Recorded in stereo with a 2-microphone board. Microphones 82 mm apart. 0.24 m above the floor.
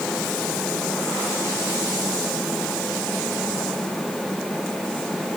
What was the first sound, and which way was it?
Only background noise.